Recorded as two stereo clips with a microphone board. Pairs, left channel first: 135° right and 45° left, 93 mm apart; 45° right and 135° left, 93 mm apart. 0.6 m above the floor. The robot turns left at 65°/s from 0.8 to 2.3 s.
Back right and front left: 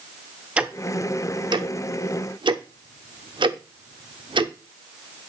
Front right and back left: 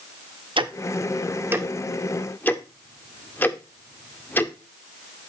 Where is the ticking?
120° left, 0.6 m; by 4.5 s 25° left, 0.6 m.